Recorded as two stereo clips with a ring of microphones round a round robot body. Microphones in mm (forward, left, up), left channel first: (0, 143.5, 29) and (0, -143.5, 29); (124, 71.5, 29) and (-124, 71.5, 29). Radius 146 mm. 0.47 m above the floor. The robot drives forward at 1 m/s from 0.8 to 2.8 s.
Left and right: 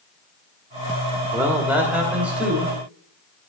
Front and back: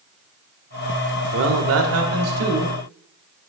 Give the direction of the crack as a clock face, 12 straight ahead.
No crack in this recording.